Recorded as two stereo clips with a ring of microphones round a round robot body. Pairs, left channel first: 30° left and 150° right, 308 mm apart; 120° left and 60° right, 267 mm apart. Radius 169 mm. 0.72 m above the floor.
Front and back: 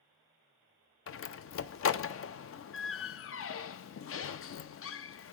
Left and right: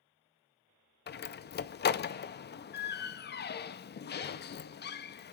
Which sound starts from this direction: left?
A door slam, at 1.1 s.